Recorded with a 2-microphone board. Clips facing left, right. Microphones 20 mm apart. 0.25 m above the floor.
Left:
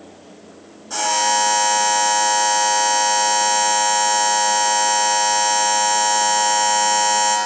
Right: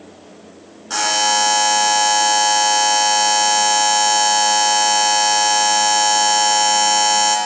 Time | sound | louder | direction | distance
0.9 | a buzzer | right 2 dB | 40° right (ahead or behind) | 1.7 m